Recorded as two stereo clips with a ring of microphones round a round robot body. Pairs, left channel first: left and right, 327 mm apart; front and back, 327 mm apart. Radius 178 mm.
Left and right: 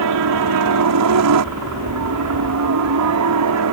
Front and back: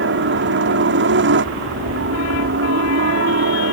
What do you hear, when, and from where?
0.0 s a helicopter: 125° right